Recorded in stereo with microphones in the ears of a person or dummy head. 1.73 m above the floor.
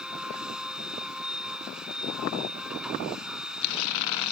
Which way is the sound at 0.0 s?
Centre (ahead or behind).